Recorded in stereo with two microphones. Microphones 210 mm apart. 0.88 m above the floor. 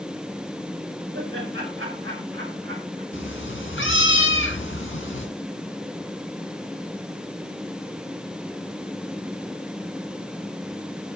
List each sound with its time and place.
1.1 s laughter: 80° right, 5.5 m
3.1 s a cat meowing: 70° left (ahead or behind), 2 m